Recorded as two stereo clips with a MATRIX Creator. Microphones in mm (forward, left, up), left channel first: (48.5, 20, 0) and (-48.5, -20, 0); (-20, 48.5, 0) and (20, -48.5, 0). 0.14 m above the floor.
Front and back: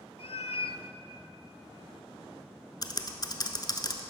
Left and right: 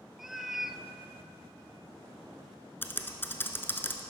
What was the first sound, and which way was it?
A cat meowing, 20° left.